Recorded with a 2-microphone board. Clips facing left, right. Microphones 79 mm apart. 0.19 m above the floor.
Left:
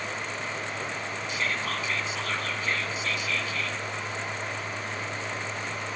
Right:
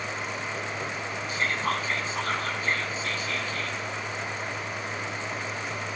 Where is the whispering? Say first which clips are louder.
Right 4 dB; 40° right (ahead or behind), 1.7 m.